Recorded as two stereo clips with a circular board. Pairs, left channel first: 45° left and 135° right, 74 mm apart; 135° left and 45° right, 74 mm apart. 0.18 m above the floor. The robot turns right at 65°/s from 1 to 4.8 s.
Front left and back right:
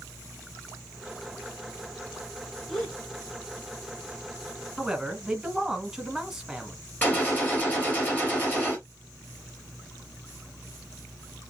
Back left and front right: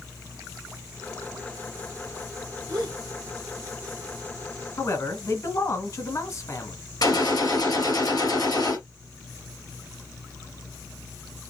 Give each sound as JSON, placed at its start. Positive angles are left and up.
{"t": 2.7, "sound": "a gasp", "azimuth_deg": -35, "distance_m": 3.0}
{"t": 4.8, "sound": "a man speaking", "azimuth_deg": 140, "distance_m": 1.4}
{"t": 7.0, "sound": "a gunshot", "azimuth_deg": 110, "distance_m": 3.5}